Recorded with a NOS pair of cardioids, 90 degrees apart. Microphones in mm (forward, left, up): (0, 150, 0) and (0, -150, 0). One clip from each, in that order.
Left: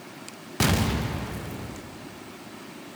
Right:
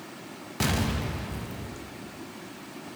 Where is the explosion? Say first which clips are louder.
Left 3 dB; 15° left, 0.6 m.